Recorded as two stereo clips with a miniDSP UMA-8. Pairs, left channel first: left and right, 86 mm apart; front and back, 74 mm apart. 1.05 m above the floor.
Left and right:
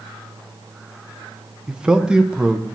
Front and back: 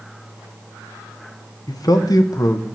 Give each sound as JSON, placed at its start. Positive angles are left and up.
{"t": 1.7, "sound": "a man speaking", "azimuth_deg": -10, "distance_m": 0.8}